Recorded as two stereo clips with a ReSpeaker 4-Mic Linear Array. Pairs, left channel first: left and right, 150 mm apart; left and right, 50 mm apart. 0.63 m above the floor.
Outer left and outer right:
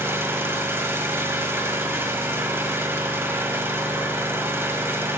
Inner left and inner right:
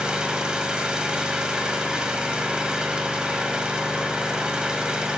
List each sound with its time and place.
0.0 s an engine running: 15° right (ahead or behind), 1.2 m